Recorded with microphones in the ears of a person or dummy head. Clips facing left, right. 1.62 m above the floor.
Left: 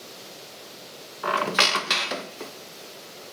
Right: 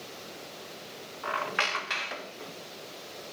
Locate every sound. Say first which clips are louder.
1.2 s a squeak: left 8 dB; 55° left (ahead or behind), 0.8 m